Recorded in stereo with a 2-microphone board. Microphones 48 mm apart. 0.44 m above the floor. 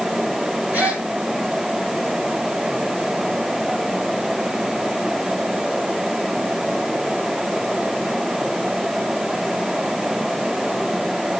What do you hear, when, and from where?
0.7 s a gasp: 35° right (ahead or behind), 3.5 m